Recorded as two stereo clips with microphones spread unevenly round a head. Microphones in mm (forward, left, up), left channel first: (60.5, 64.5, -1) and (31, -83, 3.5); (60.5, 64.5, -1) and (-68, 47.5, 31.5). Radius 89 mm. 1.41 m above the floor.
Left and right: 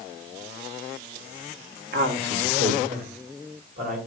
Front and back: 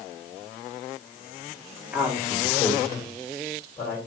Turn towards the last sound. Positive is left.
turn(degrees=-75)